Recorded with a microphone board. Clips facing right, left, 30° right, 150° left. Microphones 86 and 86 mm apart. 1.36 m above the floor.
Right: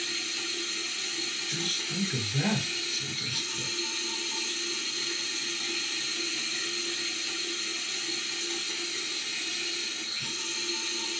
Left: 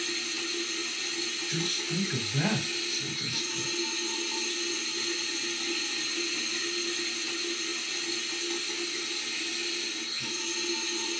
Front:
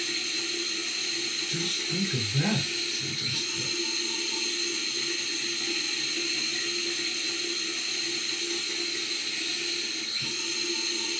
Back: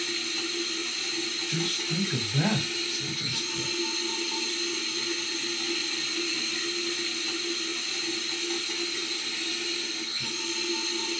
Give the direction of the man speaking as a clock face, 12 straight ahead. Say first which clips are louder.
Left 4 dB, back 1 dB; 7 o'clock.